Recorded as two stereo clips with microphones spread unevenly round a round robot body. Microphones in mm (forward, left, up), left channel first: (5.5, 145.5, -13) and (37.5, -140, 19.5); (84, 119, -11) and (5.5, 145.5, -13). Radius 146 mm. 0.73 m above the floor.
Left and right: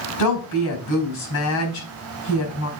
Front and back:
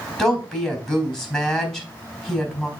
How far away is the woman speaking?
About 4 m.